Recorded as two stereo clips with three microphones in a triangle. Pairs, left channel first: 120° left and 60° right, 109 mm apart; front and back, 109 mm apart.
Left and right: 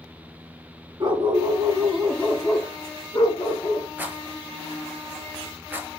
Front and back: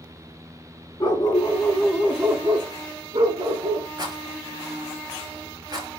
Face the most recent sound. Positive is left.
turn(degrees=-130)